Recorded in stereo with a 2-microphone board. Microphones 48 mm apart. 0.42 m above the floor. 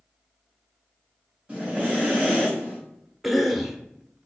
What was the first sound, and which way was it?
Breathing, 25° right (ahead or behind).